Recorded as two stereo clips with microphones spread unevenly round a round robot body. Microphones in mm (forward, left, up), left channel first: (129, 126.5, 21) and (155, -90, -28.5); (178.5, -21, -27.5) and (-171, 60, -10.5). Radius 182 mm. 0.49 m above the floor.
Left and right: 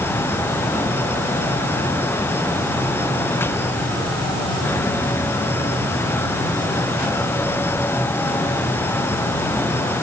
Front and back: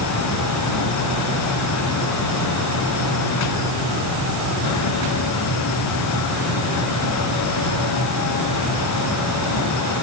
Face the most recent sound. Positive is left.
No sound to turn to.